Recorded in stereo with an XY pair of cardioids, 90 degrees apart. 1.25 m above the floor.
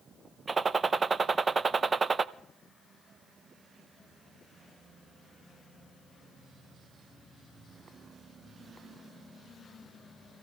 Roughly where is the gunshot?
Ahead right.